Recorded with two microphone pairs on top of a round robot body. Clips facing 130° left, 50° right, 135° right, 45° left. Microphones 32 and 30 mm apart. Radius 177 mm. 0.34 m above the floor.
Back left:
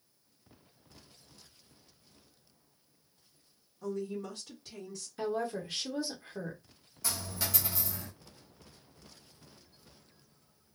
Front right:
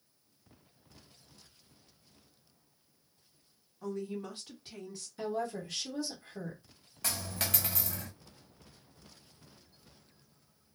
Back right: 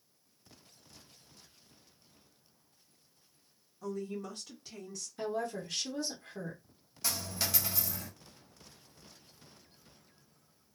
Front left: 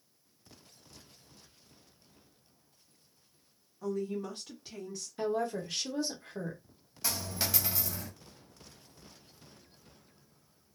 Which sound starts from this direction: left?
A woman speaking, at 5.2 s.